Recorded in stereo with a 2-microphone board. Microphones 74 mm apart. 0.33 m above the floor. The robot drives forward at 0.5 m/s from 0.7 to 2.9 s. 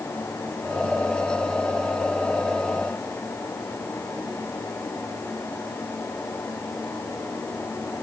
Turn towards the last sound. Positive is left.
No sound to turn to.